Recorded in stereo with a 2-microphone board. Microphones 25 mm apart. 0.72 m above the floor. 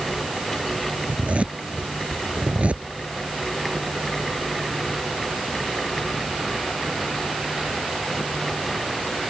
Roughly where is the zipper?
Right.